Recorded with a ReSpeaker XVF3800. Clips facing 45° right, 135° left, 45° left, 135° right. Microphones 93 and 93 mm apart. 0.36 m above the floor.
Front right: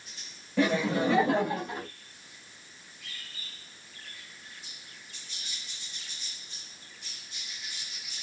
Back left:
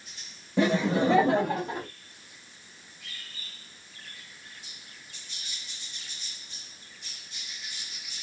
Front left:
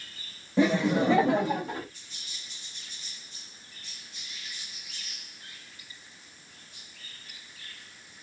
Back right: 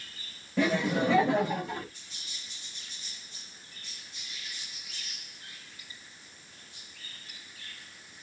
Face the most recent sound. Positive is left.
turn(degrees=100)